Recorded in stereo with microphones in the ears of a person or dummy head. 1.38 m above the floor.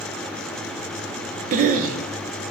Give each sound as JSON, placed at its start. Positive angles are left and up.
{"t": 1.5, "sound": "a cough", "side_deg": -50, "distance_m": 0.7}